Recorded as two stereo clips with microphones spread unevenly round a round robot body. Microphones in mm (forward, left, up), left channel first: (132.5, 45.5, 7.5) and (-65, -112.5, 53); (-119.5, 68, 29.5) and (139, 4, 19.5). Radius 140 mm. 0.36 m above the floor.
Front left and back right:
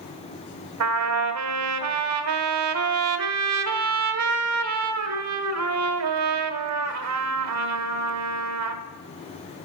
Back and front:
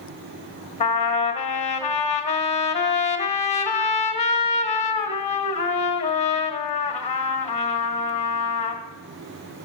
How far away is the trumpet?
About 1.3 m.